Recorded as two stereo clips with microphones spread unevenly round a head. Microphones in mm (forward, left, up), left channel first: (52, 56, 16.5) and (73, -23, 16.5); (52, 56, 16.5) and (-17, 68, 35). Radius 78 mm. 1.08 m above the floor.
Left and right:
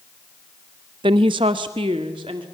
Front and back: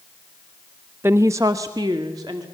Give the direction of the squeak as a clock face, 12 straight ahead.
I don't hear a squeak.